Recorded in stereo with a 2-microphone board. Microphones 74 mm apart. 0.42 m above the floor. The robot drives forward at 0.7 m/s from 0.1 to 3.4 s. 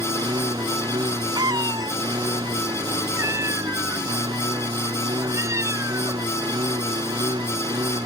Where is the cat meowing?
80° right; by 6.3 s 45° right (ahead or behind).